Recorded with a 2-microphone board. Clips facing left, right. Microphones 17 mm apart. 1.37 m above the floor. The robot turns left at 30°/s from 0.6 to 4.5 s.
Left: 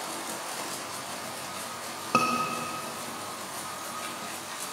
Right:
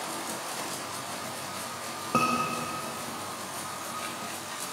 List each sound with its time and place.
2.1 s a scream: 75° left (ahead or behind), 1.4 m; by 2.3 s 80° left, 1.4 m